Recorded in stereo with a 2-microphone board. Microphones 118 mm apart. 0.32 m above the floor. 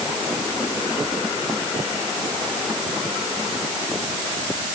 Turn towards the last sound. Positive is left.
No sound to turn to.